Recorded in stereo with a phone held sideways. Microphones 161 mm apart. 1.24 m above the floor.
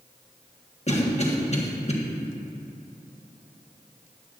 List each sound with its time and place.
0.9 s a cough: 45° left (ahead or behind), 1.4 m